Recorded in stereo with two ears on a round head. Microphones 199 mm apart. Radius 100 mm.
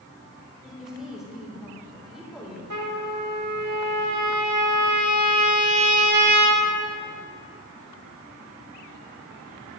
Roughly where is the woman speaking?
Centre.